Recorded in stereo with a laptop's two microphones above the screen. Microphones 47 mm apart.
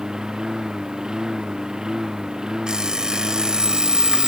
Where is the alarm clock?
15° right (ahead or behind).